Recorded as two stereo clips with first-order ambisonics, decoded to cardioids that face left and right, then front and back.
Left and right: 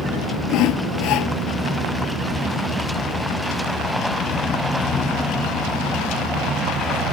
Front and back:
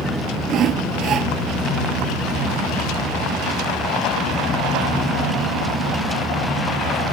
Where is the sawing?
125° left.